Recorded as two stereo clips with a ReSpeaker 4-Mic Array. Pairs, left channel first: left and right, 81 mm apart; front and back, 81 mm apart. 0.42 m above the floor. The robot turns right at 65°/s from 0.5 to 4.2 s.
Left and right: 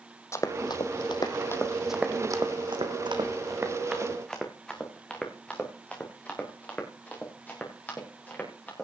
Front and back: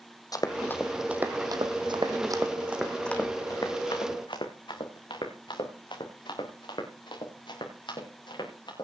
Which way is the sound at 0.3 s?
35° left.